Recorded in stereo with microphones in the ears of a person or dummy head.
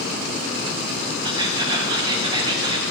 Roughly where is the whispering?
Right.